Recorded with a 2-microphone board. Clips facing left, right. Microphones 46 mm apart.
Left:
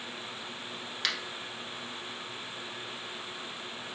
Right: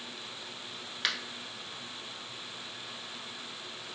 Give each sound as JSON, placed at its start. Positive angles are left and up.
{"t": 1.0, "sound": "a finger snap", "side_deg": -10, "distance_m": 1.0}